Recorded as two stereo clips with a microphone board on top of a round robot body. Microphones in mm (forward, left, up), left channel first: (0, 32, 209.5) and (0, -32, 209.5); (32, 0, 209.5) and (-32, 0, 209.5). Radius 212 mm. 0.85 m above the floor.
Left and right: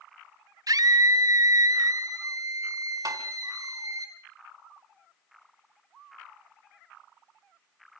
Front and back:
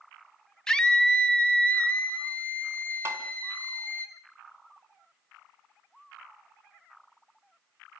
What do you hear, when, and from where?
0.7 s a scream: 80° right, 2.5 m; by 4.0 s 60° right, 5.5 m
3.0 s tapping: 125° right, 1.9 m